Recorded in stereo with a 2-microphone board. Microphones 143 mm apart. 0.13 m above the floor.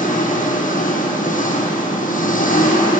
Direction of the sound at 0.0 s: 70° left (ahead or behind).